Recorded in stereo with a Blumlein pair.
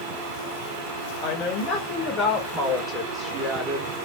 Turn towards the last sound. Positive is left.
turn(degrees=-10)